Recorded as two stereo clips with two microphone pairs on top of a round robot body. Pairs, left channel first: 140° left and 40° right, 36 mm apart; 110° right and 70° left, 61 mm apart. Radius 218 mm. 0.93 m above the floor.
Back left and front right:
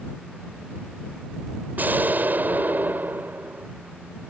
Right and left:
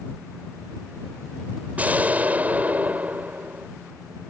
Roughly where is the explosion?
Ahead.